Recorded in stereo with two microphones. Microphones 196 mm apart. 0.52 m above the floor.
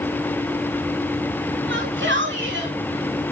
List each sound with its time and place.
1.7 s a shout: 75° right (ahead or behind), 7.5 m; by 3.3 s 80° right, 6 m